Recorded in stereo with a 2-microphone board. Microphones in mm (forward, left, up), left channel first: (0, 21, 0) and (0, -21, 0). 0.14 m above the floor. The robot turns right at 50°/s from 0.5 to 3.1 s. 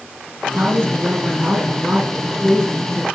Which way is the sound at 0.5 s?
130° right.